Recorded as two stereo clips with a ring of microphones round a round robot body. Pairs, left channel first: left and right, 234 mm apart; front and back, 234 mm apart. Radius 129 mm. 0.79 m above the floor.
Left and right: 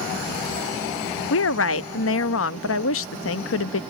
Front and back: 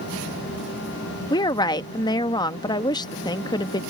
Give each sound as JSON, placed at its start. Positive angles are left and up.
{"t": 1.3, "sound": "a woman speaking", "azimuth_deg": 70}